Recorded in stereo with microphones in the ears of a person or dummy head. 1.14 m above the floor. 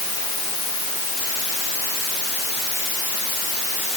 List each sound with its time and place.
Only background noise.